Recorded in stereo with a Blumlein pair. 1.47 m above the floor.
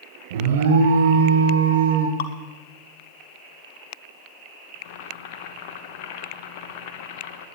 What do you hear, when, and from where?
0.3 s an alarm: 55° right, 1.4 m
2.2 s dripping: 55° left, 0.9 m
4.8 s boiling: 50° left, 1.0 m